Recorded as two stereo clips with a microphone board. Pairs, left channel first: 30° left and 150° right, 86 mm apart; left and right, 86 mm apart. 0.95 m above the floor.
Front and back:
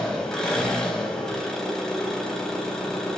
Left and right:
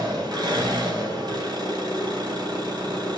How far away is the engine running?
About 3.5 m.